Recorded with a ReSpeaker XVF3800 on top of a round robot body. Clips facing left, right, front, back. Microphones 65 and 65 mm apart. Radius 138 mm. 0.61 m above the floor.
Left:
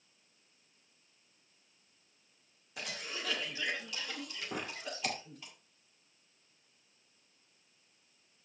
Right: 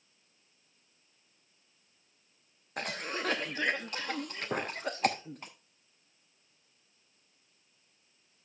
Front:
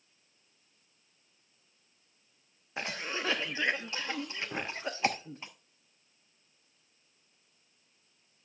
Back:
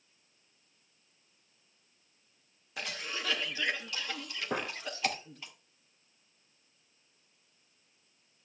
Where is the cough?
55° right, 0.9 m.